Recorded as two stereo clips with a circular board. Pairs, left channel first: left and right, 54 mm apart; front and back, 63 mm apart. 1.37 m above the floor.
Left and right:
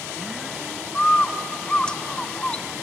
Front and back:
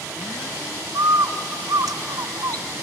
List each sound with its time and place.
0.9 s a bird: 160° left, 0.7 m